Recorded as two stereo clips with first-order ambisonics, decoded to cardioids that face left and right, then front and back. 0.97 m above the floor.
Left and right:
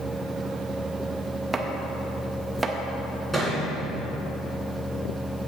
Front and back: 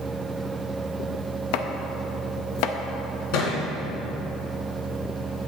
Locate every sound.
1.5 s chopping: 10° right, 0.6 m
3.3 s a thud: 5° left, 2.5 m